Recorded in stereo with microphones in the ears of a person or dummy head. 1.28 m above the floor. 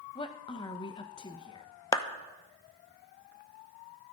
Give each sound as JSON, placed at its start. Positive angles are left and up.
{"t": 0.1, "sound": "a woman speaking", "side_deg": 20, "distance_m": 1.0}
{"t": 1.9, "sound": "a clap", "side_deg": 20, "distance_m": 0.9}